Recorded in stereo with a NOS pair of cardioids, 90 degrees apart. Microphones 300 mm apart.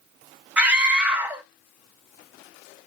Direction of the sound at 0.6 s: 5° right.